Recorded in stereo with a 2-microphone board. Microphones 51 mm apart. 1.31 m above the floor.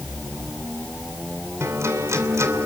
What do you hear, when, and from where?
1.6 s a guitar: 60° right (ahead or behind), 3 m